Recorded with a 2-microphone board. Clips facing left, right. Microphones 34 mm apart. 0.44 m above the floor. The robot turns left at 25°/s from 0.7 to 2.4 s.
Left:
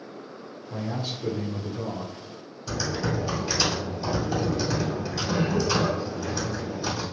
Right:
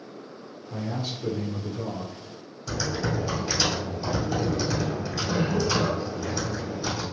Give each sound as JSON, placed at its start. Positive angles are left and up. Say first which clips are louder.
{"t": 0.7, "sound": "a man speaking", "louder": "even", "side_deg": 15, "distance_m": 1.1}
{"t": 2.7, "sound": "typing on a keyboard", "louder": "even", "side_deg": 10, "distance_m": 2.0}